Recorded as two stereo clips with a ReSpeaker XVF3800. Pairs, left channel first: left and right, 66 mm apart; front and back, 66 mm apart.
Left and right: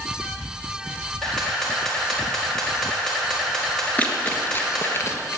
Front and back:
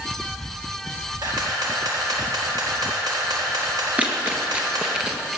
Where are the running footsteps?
135° left, 1.7 m; by 5.4 s 105° left, 2 m.